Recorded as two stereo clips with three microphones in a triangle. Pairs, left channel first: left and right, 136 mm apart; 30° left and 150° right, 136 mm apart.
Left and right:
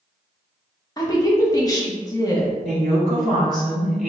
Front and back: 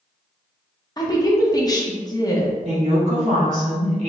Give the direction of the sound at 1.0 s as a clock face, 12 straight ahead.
10 o'clock.